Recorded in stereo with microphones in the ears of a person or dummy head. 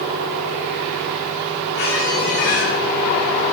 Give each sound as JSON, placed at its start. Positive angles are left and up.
{"t": 1.7, "sound": "a squeak", "side_deg": 55, "distance_m": 1.9}